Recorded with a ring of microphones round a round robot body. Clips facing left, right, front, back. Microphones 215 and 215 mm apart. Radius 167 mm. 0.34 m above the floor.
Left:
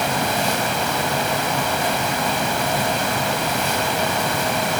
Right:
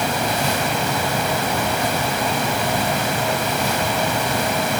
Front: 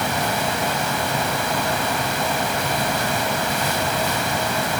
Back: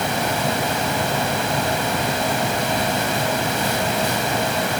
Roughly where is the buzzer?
No buzzer in this recording.